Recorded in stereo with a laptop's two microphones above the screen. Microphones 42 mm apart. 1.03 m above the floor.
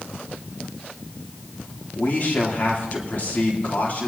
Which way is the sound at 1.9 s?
45° left (ahead or behind).